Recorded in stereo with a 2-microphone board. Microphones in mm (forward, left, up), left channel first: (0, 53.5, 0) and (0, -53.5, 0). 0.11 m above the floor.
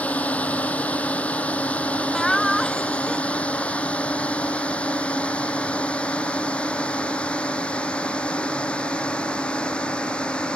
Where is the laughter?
5° left (ahead or behind).